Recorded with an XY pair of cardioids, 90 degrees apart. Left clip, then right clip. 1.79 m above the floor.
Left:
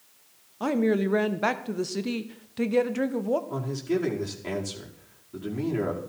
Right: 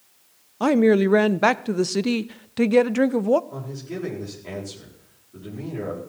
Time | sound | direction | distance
0.6 | a woman speaking | 55° right | 0.6 m
3.5 | a man speaking | 60° left | 4.5 m